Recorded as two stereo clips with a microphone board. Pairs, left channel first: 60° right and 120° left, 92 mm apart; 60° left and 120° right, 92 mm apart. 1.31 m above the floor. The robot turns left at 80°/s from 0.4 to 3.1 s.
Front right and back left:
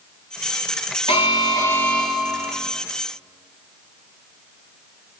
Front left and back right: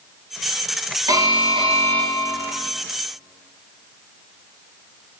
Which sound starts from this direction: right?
An alarm, at 1.1 s.